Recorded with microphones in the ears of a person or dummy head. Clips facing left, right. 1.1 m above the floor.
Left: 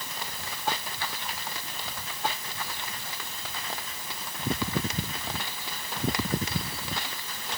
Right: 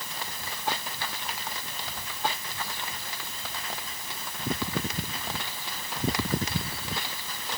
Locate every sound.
Only background noise.